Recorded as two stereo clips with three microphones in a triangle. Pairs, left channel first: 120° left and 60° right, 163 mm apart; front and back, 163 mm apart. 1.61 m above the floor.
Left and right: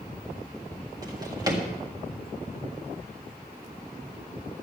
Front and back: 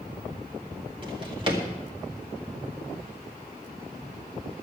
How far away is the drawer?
About 1.9 m.